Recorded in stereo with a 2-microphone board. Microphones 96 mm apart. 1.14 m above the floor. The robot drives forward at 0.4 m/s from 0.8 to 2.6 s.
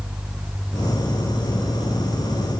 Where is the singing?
I don't hear singing.